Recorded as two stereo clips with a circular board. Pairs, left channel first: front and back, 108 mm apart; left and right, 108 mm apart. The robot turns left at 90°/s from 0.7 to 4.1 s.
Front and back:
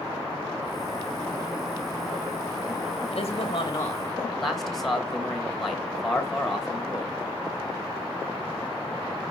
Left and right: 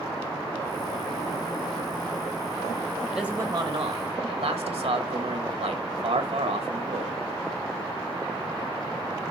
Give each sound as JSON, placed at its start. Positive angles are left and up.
{"t": 3.1, "sound": "a man speaking", "azimuth_deg": 0, "distance_m": 2.5}